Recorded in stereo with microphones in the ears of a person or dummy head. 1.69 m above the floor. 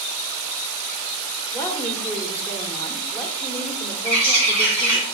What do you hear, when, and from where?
1.5 s a woman speaking: 10° left (ahead or behind), 1.8 m
4.0 s a bird: 65° left (ahead or behind), 4.5 m